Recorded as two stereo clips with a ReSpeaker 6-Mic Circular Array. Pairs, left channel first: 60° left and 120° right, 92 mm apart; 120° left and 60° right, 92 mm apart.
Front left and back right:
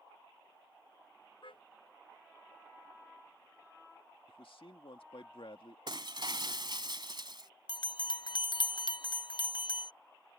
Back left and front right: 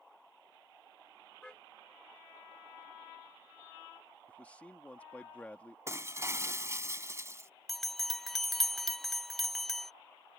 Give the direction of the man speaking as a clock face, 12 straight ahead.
11 o'clock.